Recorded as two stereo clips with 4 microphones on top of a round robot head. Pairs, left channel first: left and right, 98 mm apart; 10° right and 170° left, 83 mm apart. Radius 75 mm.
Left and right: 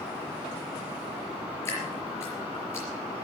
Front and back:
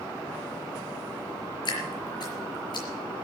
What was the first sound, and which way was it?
Dripping, 20° left.